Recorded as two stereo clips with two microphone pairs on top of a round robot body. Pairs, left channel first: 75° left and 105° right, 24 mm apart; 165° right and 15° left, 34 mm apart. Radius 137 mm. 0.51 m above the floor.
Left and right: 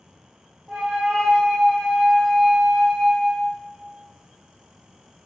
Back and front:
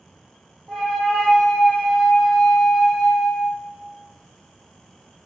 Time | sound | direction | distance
0.7 | a flute | 85° right | 1.4 m